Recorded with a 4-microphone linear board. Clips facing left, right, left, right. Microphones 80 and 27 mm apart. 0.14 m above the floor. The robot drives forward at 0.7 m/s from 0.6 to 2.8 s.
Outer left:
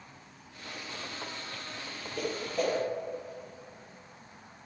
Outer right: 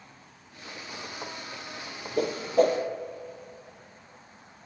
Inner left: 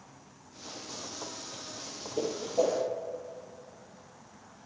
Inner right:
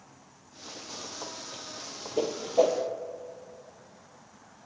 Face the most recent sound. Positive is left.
turn(degrees=-35)  # may be behind; listen again after turning